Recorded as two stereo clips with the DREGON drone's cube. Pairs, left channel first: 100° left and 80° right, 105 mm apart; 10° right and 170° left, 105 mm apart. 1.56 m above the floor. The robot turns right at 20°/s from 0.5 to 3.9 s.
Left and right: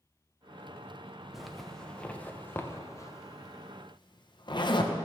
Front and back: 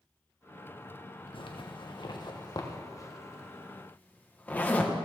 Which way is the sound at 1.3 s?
10° left.